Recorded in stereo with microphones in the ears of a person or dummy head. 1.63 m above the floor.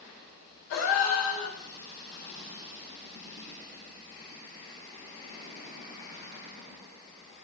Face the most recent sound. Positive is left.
turn(degrees=60)  # may be behind; listen again after turning